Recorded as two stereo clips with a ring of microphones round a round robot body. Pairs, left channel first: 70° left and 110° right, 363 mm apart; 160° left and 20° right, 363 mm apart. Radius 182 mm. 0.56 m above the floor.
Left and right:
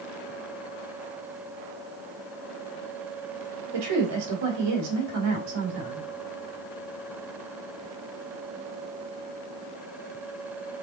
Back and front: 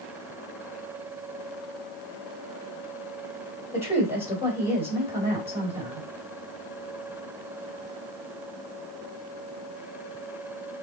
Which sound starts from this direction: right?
A woman speaking, at 3.7 s.